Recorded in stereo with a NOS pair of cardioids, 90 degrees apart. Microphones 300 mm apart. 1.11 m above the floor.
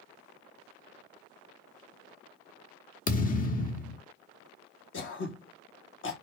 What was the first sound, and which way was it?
A thud, 30° left.